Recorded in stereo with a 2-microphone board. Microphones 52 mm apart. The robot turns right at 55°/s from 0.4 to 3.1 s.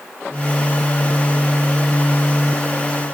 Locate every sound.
Only background noise.